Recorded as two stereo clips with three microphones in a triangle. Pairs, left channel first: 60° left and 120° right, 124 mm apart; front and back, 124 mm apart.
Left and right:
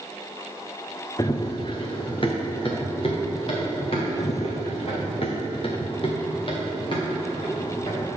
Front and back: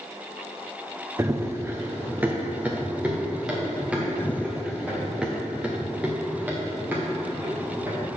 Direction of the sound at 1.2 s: 115° left.